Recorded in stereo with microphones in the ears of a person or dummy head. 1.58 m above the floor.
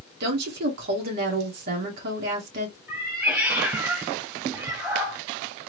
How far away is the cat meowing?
About 1.7 m.